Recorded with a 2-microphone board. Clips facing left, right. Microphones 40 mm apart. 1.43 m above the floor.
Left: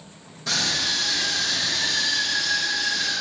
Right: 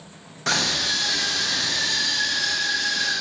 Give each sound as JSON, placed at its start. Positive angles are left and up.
{"t": 0.5, "sound": "a scream", "side_deg": -70, "distance_m": 0.8}